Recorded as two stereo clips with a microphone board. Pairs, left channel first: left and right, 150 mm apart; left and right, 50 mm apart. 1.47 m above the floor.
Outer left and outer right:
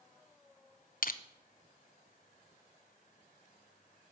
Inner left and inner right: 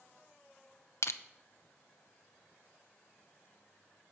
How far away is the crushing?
About 0.8 m.